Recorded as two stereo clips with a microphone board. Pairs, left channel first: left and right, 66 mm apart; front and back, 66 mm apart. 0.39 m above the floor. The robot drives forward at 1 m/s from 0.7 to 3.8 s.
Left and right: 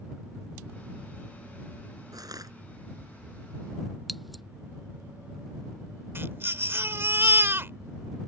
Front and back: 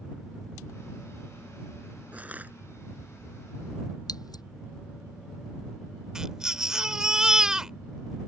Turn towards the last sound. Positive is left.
turn(degrees=-105)